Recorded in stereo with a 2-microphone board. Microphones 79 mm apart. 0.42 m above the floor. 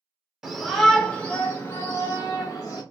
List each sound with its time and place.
0.4 s a shout: 5° right (ahead or behind), 1.1 m; by 2.8 s 45° left (ahead or behind), 1.9 m